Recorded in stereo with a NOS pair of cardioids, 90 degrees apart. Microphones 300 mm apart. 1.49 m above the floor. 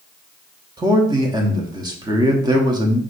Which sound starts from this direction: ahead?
A man speaking, at 0.8 s.